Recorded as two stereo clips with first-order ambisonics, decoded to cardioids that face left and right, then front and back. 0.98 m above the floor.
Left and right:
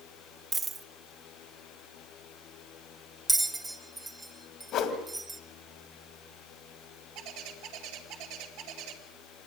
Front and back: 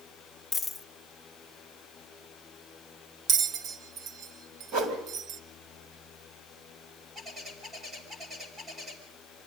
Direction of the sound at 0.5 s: 60° right.